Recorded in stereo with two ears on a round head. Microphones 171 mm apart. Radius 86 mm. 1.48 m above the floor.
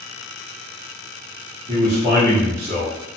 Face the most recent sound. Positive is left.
turn(degrees=-50)  # may be behind; listen again after turning